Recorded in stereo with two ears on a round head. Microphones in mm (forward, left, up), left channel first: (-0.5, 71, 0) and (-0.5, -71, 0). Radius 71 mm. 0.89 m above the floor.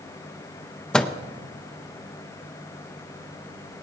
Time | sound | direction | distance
0.9 | a microwave | 5° left (ahead or behind) | 0.5 m